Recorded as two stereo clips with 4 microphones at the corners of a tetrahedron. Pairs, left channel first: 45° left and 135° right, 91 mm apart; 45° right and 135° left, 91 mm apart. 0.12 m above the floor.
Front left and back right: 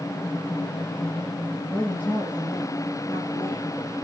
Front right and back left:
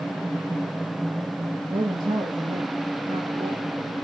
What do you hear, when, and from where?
1.7 s a woman speaking: 115° left, 2 m; by 4.0 s 110° left, 4.5 m